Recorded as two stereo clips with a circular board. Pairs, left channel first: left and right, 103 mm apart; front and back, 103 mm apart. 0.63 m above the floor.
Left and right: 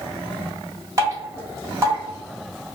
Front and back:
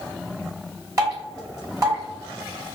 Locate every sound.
1.0 s dripping: 135° right, 1.4 m